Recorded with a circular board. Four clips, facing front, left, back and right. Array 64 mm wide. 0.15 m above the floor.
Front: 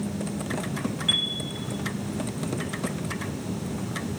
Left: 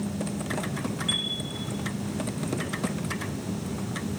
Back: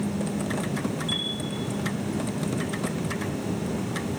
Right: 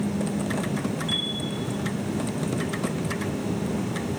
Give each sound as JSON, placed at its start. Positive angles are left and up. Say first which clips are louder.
{"t": 1.1, "sound": "a chime", "louder": "right 2 dB, front 2 dB", "azimuth_deg": 10, "distance_m": 3.0}